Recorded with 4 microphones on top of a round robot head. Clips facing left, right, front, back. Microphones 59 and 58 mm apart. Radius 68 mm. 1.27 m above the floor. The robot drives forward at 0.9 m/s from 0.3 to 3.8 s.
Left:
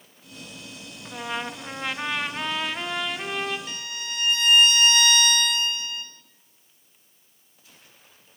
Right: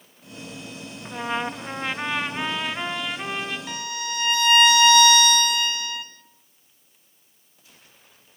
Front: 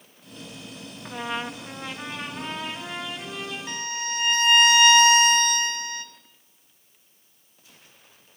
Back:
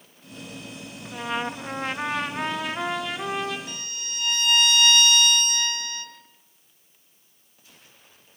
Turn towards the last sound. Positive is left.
turn(degrees=-70)